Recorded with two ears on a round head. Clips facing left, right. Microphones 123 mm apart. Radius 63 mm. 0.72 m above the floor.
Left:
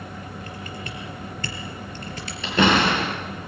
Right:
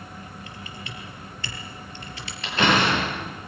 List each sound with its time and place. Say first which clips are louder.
0.5 s typing on a keyboard: left 5 dB; 40° left (ahead or behind), 4 m
2.4 s a door slam: left 2 dB; 75° left (ahead or behind), 9.5 m